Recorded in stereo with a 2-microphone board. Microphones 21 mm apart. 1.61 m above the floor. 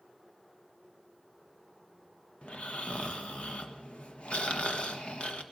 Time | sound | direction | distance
2.4 | snoring | 70° left (ahead or behind) | 1.3 m